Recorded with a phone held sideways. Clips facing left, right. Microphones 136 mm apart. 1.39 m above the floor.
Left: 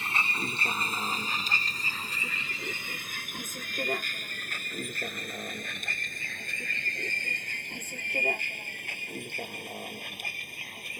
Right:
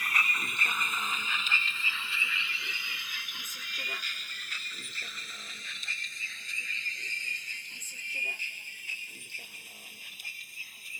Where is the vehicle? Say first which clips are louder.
Left 2 dB; 25° left (ahead or behind); by 11.0 s 65° left (ahead or behind).